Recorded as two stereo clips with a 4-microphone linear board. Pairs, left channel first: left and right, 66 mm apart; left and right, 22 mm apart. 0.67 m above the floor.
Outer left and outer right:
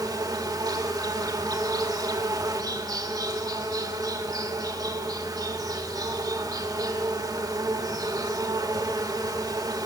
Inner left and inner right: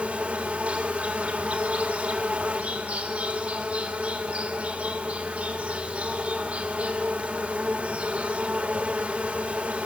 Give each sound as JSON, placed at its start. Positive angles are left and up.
{"t": 0.0, "sound": "an insect", "side_deg": -75, "distance_m": 1.2}